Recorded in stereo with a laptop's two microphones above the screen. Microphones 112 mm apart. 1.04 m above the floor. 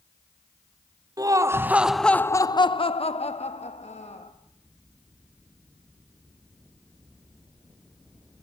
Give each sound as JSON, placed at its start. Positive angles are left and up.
{"t": 1.2, "sound": "laughter", "side_deg": -35, "distance_m": 0.9}